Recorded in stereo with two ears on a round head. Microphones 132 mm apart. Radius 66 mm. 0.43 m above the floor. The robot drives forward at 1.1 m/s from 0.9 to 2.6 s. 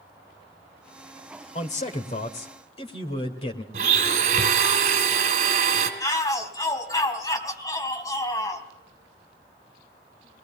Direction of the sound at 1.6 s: 50° left (ahead or behind).